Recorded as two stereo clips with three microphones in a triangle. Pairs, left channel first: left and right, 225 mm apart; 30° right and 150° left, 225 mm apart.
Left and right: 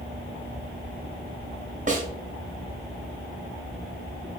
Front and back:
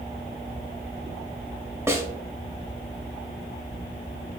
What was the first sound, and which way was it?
A snare drum, 135° right.